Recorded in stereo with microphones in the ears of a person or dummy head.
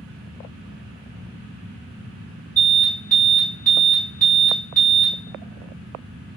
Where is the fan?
Centre (ahead or behind), 1.6 m.